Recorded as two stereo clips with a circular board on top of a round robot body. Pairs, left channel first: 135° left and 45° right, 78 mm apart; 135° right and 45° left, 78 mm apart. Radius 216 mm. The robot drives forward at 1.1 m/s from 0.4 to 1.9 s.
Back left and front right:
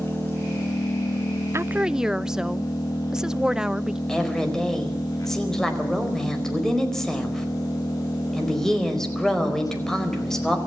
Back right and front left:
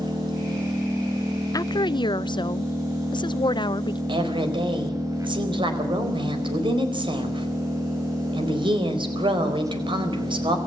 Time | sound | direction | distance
0.0 | an engine running | 70° left | 5 m
1.5 | a woman speaking | 95° right | 0.7 m
4.1 | a woman speaking | 50° left | 4.5 m